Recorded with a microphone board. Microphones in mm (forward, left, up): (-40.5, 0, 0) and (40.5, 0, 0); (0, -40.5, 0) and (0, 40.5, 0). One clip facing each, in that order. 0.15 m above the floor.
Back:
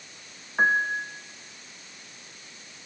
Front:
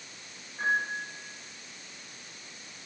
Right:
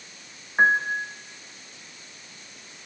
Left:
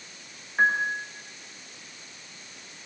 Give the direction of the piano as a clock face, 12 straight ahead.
5 o'clock.